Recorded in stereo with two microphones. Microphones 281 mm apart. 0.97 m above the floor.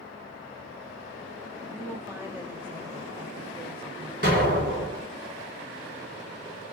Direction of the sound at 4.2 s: 40° right (ahead or behind).